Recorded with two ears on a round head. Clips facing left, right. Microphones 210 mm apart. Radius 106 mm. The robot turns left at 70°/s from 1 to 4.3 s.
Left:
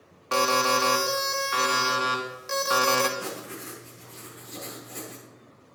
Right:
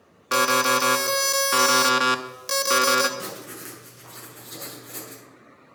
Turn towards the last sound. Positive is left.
turn(degrees=-110)